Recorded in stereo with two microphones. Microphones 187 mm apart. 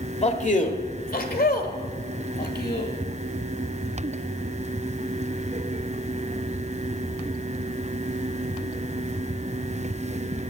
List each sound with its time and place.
0.2 s a man speaking: 35° left (ahead or behind), 1.3 m; by 2.9 s 65° left (ahead or behind), 2 m